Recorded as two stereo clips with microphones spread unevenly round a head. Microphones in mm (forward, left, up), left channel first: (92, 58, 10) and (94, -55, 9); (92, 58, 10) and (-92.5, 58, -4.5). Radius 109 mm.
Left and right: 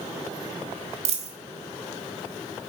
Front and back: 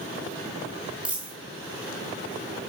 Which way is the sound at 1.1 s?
95° right.